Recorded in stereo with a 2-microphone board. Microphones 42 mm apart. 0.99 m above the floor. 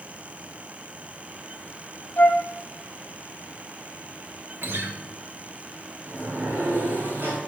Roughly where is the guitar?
Right.